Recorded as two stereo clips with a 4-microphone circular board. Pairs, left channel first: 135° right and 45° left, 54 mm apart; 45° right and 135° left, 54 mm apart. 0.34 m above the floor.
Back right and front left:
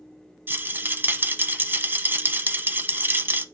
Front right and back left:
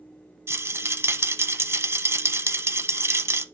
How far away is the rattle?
About 0.7 m.